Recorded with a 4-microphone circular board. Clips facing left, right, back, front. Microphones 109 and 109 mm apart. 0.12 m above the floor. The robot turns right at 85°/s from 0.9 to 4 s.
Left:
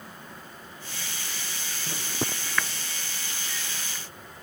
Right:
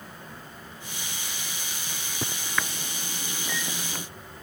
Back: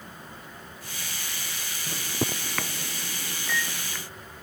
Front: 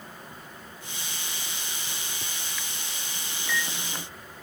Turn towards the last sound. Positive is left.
turn(degrees=-50)